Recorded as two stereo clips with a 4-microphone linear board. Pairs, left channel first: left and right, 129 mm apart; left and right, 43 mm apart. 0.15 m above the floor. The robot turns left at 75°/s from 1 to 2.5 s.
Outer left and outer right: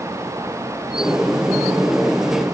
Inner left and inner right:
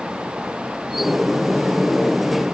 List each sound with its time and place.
Only background noise.